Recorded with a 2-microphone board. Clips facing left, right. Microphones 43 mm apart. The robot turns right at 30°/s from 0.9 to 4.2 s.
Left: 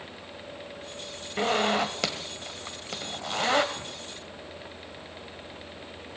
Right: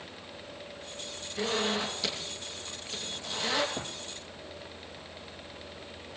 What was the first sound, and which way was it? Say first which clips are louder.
A zipper: left 6 dB; 65° left (ahead or behind).